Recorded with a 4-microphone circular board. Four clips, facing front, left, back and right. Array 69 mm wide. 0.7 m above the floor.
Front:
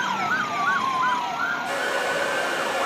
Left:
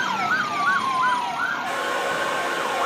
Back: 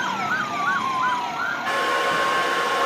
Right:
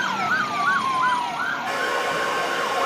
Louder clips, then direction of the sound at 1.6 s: Right 1 dB, back 3 dB; 175° left.